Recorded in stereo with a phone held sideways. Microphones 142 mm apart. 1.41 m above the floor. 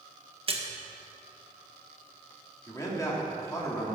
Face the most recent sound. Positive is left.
turn(degrees=20)  # may be behind; listen again after turning